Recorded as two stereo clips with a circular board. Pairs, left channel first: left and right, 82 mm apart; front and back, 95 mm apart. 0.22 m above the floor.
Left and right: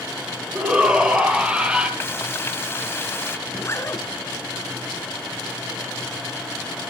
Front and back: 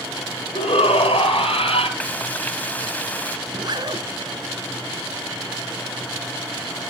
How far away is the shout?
About 6.5 m.